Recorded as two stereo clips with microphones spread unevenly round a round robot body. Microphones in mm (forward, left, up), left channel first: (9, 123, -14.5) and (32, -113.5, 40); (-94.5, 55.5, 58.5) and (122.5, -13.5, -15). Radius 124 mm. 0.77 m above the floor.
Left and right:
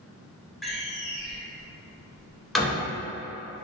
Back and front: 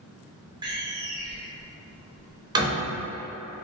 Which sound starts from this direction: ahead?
A door slam, at 0.6 s.